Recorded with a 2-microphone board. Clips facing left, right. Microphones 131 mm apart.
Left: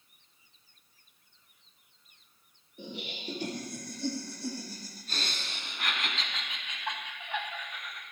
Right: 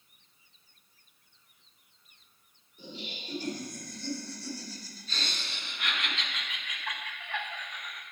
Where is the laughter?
65° left (ahead or behind), 3 m; by 8.0 s centre (ahead or behind), 1.2 m.